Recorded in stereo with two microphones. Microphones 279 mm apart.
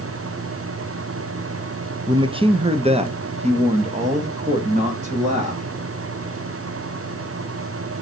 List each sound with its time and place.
2.1 s a man speaking: 15° right (ahead or behind), 0.7 m; by 5.6 s 25° right (ahead or behind), 2.5 m